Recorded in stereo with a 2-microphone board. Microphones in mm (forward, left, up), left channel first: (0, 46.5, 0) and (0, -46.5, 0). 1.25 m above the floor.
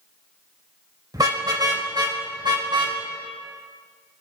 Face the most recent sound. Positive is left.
turn(degrees=-50)  # may be behind; listen again after turning